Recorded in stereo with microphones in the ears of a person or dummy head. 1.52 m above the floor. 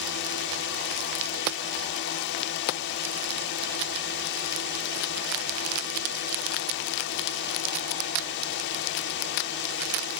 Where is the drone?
65° left (ahead or behind).